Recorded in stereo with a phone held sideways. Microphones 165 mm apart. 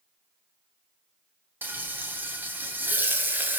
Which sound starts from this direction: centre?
Frying, at 1.6 s.